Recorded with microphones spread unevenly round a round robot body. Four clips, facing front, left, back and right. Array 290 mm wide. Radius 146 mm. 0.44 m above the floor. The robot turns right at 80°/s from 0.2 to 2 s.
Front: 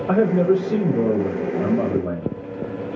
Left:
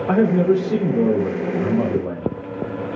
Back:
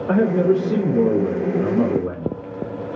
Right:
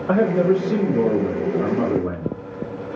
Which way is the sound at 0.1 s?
115° left.